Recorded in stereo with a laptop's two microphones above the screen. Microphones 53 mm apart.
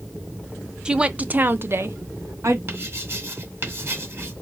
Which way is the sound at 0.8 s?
15° right (ahead or behind).